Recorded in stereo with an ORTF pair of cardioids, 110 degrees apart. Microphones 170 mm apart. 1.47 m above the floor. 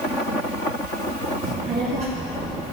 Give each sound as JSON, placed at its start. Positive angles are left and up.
{"t": 1.4, "sound": "a child speaking", "azimuth_deg": -55, "distance_m": 0.9}